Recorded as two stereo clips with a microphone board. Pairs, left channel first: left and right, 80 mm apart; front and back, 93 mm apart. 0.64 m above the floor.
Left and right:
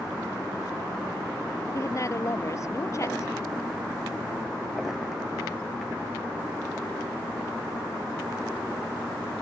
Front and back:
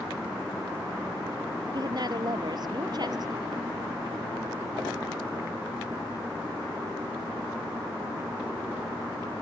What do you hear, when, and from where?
1.7 s a woman speaking: 140° left